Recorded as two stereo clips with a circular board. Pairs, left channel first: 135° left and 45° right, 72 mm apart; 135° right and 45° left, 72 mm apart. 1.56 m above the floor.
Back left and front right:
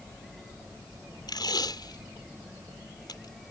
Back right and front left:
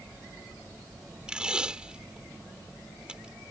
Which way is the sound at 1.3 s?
120° left.